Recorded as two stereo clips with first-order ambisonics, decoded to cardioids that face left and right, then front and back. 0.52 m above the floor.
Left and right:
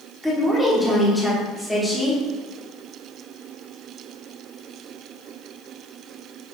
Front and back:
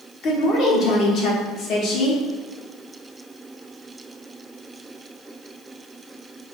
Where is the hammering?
No hammering in this recording.